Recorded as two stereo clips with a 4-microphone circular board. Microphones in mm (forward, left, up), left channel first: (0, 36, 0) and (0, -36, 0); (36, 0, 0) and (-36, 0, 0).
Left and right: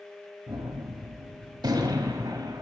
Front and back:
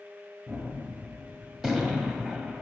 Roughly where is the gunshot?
Right.